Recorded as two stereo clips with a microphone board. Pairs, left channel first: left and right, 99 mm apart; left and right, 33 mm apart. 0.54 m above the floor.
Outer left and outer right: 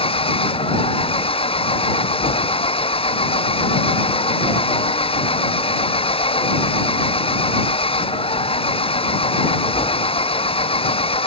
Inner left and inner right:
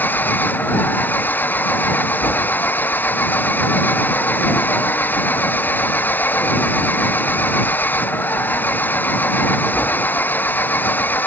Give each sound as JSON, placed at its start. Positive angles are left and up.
{"t": 0.0, "sound": "an engine running", "side_deg": 70}